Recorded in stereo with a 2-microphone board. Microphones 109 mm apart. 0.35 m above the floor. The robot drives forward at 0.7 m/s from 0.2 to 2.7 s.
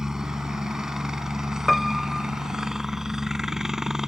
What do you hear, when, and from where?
0.0 s a helicopter: 5° right (ahead or behind)
1.7 s a piano: centre (ahead or behind)